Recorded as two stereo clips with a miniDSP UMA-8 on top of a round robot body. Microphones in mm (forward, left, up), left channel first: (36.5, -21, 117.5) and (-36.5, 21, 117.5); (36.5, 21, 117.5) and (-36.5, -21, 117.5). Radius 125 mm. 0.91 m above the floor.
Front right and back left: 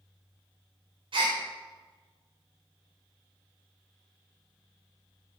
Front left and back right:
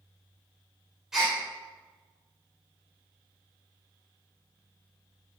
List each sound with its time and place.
1.1 s a gasp: 125° left, 3 m